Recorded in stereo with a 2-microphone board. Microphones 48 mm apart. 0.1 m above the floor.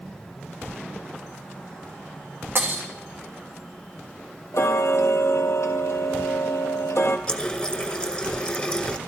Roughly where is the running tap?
Centre.